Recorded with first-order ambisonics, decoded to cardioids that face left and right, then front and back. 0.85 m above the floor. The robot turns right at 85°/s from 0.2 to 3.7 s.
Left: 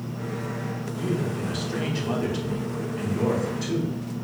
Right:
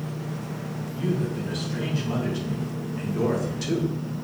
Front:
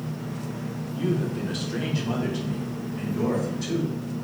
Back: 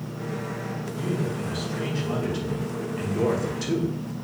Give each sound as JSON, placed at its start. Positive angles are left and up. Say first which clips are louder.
{"t": 1.0, "sound": "a man speaking", "louder": "even, front 3 dB", "azimuth_deg": -15, "distance_m": 0.8}